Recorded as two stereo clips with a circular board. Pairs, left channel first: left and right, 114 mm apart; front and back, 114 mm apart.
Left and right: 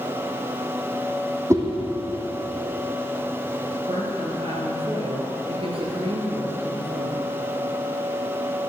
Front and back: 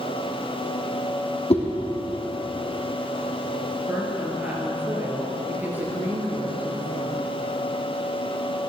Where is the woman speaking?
110° right, 3 m.